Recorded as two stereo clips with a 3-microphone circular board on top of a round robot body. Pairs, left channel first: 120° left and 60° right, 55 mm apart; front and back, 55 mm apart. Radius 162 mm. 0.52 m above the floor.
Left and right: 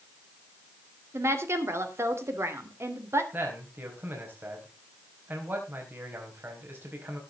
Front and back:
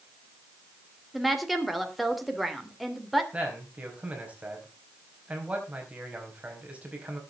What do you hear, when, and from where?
1.1 s a woman speaking: 90° right, 3 m
3.3 s a man speaking: 115° right, 4.5 m